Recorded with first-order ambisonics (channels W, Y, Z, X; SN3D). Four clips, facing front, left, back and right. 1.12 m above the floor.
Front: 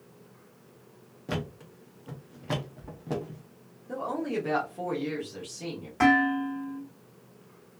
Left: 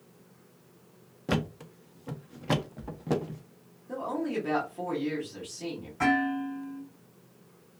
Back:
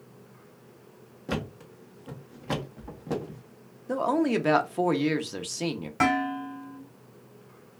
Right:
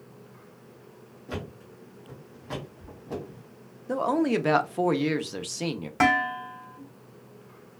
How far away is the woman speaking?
About 0.7 m.